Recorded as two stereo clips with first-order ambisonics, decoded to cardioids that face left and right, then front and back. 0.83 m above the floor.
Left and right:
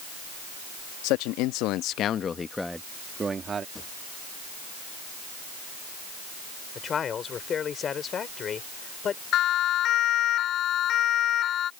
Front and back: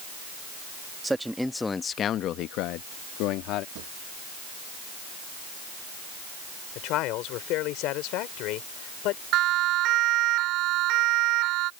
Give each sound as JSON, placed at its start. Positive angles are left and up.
{"t": 1.0, "sound": "a man speaking", "azimuth_deg": 100}
{"t": 3.8, "sound": "a drawer", "azimuth_deg": 165}
{"t": 6.8, "sound": "a man speaking", "azimuth_deg": 30}
{"t": 9.3, "sound": "a siren", "azimuth_deg": 140}